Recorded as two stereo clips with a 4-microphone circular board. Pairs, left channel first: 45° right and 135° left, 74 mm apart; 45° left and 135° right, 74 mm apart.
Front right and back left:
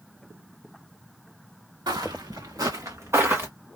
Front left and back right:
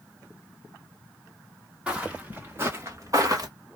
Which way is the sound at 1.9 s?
150° left.